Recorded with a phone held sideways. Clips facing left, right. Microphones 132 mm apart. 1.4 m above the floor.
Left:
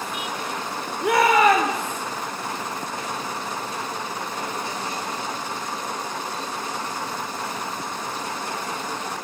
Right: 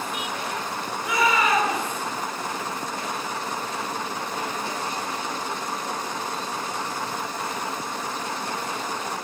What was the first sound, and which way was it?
A shout, 60° left (ahead or behind).